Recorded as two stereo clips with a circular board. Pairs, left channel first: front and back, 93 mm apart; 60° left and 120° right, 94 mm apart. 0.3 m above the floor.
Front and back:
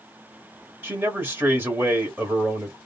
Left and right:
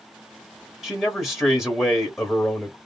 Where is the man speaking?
155° left, 0.9 m.